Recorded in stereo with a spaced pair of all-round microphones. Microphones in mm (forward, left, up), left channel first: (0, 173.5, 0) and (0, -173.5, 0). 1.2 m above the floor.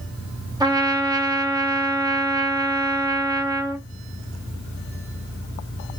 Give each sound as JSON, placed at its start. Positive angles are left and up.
{"t": 0.6, "sound": "a trumpet", "side_deg": -10, "distance_m": 0.8}